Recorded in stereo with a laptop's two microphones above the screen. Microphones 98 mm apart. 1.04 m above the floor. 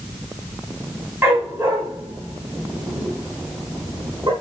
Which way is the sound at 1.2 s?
25° right (ahead or behind).